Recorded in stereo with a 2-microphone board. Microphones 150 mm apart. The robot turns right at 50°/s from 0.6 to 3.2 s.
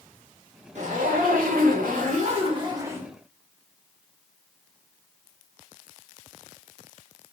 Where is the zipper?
125° right, 2.5 m; by 3.1 s 10° right, 2.5 m.